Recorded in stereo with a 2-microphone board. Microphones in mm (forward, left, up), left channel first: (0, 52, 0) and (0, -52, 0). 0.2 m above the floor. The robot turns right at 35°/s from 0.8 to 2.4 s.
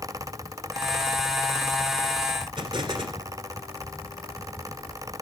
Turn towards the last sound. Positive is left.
turn(degrees=-45)  # may be behind; listen again after turning